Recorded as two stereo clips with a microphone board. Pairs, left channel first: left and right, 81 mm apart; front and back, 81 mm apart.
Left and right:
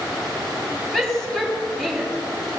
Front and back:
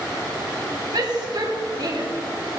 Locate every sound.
0.9 s a shout: straight behind, 3.5 m